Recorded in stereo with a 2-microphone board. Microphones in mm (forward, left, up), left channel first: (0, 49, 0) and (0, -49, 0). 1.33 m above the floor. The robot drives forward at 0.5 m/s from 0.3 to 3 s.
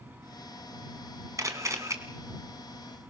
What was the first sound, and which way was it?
A camera shutter, 30° right (ahead or behind).